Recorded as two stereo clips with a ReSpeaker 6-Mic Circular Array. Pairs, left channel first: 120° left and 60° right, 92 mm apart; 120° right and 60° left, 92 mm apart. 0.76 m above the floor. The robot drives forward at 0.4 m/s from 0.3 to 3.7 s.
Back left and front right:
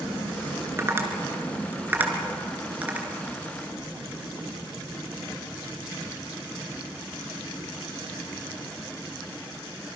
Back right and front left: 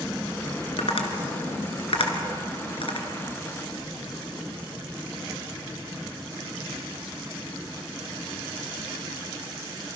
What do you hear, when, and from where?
0.8 s tapping: 120° right, 2.5 m; by 3.1 s 135° right, 3 m